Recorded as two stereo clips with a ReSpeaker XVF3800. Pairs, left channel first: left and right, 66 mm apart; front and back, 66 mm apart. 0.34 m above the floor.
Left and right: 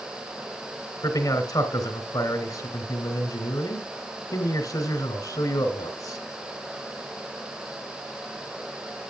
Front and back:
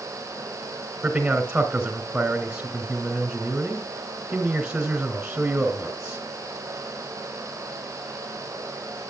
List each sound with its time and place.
1.0 s a man speaking: 105° left, 3 m